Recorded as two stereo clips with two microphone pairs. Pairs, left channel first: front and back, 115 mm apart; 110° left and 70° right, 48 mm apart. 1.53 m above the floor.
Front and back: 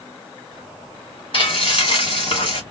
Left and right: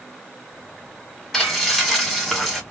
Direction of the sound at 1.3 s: 25° left.